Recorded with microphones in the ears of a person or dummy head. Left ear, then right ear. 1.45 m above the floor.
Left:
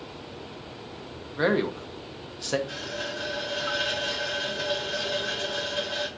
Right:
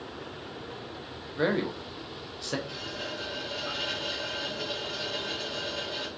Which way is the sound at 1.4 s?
10° left (ahead or behind).